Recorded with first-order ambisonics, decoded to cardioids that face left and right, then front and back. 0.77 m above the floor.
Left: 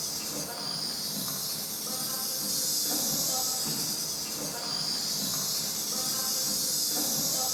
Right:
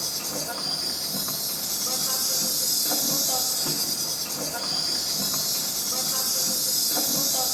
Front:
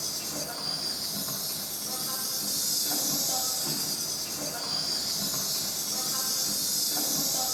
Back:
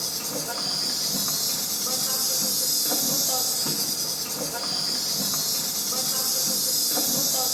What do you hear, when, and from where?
0.0 s an insect: 150° right, 0.7 m